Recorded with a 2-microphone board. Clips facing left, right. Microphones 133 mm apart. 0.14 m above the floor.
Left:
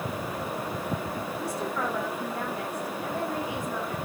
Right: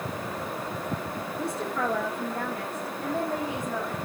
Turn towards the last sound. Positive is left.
turn(degrees=-50)  # may be behind; listen again after turning